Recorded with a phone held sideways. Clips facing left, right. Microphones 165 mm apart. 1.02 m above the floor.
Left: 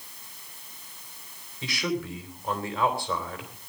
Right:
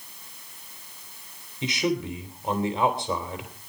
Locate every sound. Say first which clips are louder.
1.6 s a man speaking: right 4 dB; 20° right (ahead or behind), 3 m